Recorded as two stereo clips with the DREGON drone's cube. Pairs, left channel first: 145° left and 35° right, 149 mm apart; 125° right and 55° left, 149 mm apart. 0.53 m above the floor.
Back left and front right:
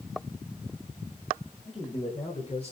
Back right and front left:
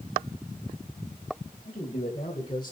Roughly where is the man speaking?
Behind.